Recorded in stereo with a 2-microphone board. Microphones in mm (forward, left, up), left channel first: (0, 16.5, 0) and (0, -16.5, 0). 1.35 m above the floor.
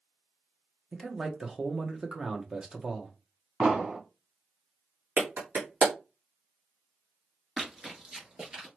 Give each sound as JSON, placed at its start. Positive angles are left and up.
{"t": 0.9, "sound": "a man speaking", "side_deg": -25, "distance_m": 1.0}
{"t": 3.6, "sound": "an explosion", "side_deg": -25, "distance_m": 2.0}
{"t": 5.2, "sound": "a clap", "side_deg": -55, "distance_m": 1.7}
{"t": 7.6, "sound": "running footsteps", "side_deg": -20, "distance_m": 1.4}